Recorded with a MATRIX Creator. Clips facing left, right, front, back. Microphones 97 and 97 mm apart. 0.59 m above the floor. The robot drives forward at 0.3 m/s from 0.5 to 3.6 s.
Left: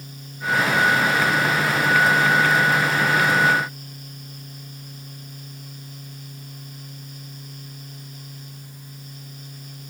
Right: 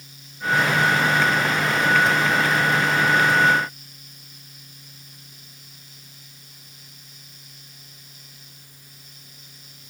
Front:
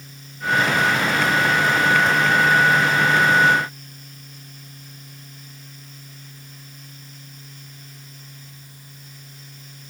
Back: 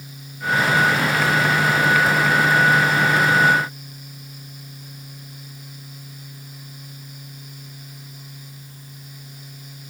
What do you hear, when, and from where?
Only background noise.